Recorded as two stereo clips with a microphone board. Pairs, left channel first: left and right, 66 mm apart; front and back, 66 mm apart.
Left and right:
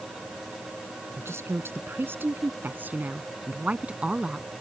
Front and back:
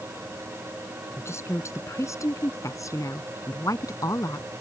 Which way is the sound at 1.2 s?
45° right.